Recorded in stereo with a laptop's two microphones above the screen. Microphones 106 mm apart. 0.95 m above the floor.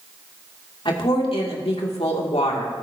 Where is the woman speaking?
55° left (ahead or behind), 2.5 m; by 2.7 s 70° left (ahead or behind), 2.5 m.